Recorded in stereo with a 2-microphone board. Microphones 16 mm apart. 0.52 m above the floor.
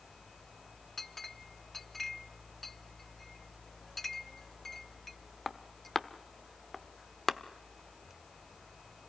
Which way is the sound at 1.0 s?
20° left (ahead or behind).